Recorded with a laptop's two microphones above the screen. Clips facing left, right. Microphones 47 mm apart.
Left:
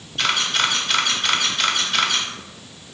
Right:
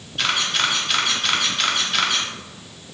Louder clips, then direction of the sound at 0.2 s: Left 1 dB; centre (ahead or behind).